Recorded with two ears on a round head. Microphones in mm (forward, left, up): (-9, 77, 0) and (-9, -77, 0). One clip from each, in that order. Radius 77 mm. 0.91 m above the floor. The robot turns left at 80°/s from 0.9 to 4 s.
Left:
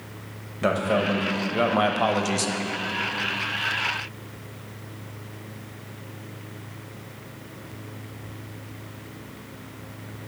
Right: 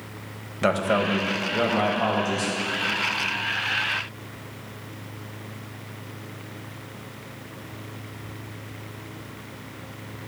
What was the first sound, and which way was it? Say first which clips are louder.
A man speaking: right 1 dB; 150° right.